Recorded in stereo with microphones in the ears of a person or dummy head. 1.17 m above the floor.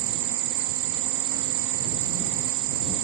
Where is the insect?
80° right.